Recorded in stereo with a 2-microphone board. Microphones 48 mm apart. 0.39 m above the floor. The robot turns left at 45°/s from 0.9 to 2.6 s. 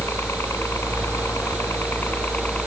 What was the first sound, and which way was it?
A helicopter, 105° left.